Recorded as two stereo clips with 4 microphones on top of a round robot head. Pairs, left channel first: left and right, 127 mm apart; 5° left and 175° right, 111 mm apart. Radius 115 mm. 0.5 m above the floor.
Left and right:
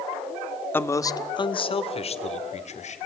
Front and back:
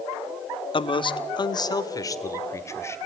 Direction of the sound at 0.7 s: 20° left.